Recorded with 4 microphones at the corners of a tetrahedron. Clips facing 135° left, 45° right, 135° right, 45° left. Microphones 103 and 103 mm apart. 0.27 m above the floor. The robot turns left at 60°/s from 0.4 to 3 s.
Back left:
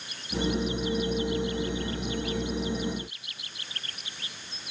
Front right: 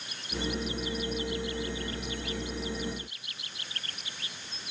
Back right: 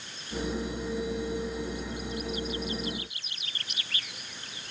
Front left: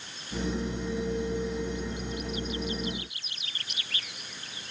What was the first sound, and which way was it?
Only background noise.